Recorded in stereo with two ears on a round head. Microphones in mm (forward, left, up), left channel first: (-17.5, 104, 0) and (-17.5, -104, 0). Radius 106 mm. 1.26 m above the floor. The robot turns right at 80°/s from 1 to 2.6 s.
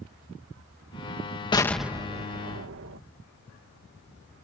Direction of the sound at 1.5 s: 160° left.